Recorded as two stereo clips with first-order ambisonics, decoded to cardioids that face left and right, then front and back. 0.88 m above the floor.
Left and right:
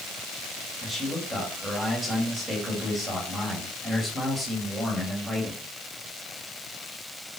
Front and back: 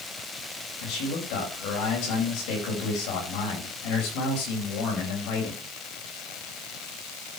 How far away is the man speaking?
About 5 m.